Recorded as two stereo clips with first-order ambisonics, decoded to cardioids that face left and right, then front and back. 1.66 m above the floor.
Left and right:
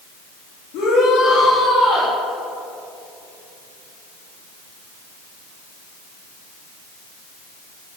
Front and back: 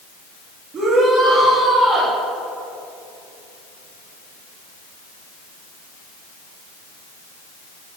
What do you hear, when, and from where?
0.7 s a shout: 120° left, 3.5 m